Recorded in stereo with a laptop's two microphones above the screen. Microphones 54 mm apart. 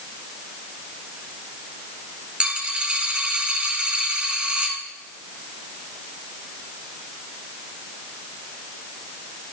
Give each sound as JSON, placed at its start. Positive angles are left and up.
{"t": 2.4, "sound": "a dropped coin", "side_deg": -20, "distance_m": 1.6}